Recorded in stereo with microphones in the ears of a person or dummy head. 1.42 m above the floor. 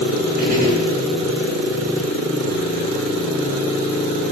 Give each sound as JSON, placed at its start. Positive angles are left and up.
{"t": 0.4, "sound": "a gunshot", "side_deg": -50, "distance_m": 7.5}